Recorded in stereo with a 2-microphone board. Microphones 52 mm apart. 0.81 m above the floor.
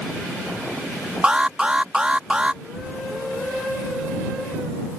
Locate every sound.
1.2 s an alarm: 20° right (ahead or behind)
2.6 s a child speaking: 40° right (ahead or behind)